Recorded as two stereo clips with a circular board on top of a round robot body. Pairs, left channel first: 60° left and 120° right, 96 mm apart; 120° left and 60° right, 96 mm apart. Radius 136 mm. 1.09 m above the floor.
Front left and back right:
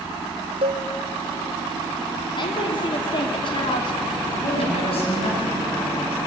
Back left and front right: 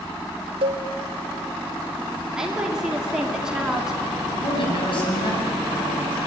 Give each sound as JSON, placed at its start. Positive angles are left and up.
{"t": 0.6, "sound": "a cowbell", "azimuth_deg": -90, "distance_m": 1.3}
{"t": 2.4, "sound": "a woman speaking", "azimuth_deg": 25, "distance_m": 3.0}
{"t": 4.3, "sound": "a woman speaking", "azimuth_deg": 85, "distance_m": 8.0}